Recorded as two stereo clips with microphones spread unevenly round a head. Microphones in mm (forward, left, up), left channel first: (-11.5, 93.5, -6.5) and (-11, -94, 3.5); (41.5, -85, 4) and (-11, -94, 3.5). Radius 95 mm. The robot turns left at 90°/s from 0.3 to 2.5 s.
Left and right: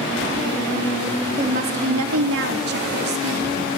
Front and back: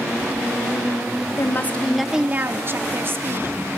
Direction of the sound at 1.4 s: 25° right.